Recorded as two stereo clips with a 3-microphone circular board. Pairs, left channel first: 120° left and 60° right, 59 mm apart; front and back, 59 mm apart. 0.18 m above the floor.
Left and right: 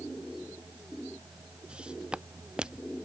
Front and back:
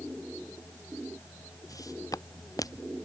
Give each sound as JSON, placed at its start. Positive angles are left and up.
{"t": 1.7, "sound": "footsteps", "azimuth_deg": 15}